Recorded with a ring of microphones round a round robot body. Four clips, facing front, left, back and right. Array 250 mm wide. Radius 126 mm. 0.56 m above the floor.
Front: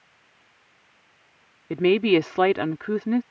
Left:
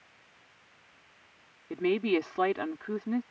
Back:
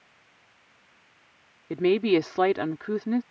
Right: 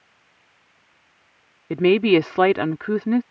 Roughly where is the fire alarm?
I don't hear a fire alarm.